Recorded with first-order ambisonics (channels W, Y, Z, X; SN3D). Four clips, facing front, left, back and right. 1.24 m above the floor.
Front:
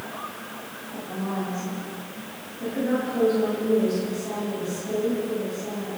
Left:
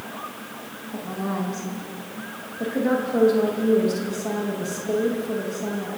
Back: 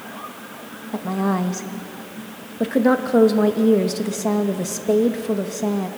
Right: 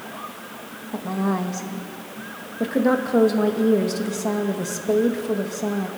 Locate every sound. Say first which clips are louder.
0.9 s a woman speaking: right 4 dB, back 8 dB; 160° right, 1.1 m